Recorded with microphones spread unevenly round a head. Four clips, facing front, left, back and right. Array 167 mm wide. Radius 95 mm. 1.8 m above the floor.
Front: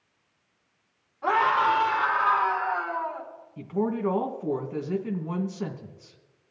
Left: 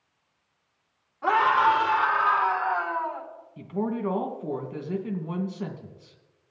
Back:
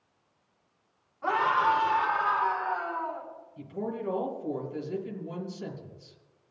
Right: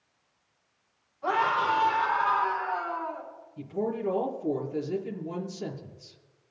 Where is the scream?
70° left, 5.5 m; by 3.3 s 60° left, 6.5 m.